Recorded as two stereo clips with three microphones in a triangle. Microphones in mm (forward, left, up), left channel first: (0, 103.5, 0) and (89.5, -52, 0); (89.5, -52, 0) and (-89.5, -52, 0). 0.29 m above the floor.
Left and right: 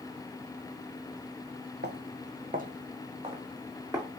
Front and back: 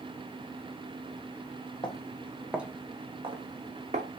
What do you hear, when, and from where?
1.8 s footsteps: 65° right, 0.9 m; by 4.1 s 135° right, 1.6 m